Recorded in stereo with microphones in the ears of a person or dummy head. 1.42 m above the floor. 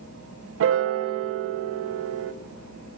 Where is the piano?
70° right (ahead or behind), 0.6 m.